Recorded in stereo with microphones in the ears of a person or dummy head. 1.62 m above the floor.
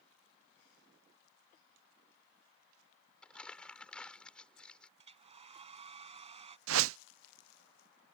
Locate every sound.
3.2 s crumpling: 5° left (ahead or behind)
5.0 s a hair dryer: 35° right (ahead or behind)
6.7 s a whoosh: 80° right